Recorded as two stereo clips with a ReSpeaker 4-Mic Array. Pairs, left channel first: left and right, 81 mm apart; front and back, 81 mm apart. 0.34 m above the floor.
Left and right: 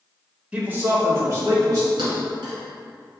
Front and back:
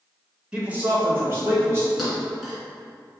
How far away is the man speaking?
About 1.0 m.